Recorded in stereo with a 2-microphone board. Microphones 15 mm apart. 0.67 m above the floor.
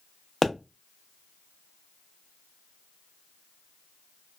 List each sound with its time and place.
0.4 s a pop: 30° left (ahead or behind), 0.6 m